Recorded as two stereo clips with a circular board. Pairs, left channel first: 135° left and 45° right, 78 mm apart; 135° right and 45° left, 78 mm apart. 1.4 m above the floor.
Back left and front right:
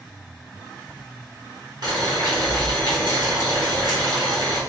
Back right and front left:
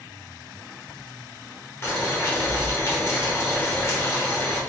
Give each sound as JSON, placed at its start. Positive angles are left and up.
{"t": 1.8, "sound": "boiling", "azimuth_deg": -75, "distance_m": 1.5}